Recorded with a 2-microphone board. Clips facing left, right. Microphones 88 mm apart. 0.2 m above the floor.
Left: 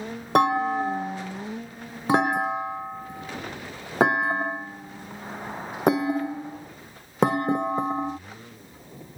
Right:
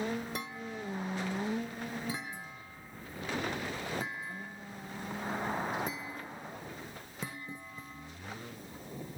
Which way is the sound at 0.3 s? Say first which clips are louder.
Left 20 dB; 70° left (ahead or behind).